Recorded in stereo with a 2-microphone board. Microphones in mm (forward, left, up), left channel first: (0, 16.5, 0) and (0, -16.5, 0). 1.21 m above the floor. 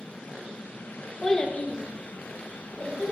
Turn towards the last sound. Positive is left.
turn(degrees=80)